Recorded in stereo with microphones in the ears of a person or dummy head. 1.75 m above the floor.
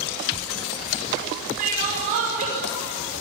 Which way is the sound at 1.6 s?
45° right (ahead or behind).